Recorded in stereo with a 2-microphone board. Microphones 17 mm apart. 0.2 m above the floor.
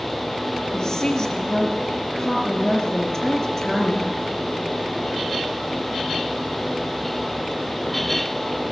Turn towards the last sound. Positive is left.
turn(degrees=20)  # may be behind; listen again after turning